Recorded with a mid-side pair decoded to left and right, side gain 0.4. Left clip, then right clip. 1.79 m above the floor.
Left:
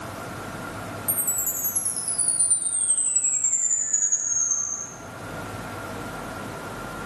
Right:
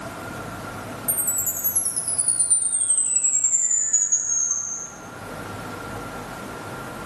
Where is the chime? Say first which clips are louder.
Right 2 dB; 25° right, 3.5 m.